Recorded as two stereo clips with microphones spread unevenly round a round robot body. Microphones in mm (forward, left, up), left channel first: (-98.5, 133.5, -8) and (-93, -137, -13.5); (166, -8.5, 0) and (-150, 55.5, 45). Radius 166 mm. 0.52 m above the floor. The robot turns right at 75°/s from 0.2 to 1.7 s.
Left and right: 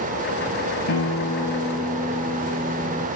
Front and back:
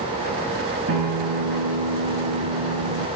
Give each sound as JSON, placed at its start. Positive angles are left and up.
{"t": 0.9, "sound": "a guitar", "azimuth_deg": 120, "distance_m": 2.5}